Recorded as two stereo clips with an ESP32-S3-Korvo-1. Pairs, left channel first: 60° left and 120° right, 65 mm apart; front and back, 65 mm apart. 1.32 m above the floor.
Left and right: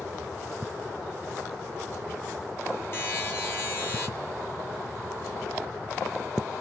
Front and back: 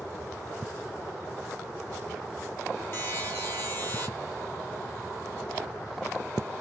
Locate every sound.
2.9 s a buzzer: 30° left, 1.5 m